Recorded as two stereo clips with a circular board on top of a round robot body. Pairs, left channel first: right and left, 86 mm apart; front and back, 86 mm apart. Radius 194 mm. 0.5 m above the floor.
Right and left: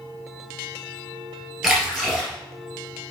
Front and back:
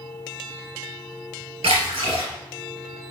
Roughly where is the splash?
Behind.